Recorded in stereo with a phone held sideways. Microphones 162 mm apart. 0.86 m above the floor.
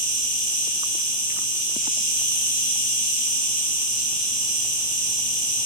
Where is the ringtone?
No ringtone in this recording.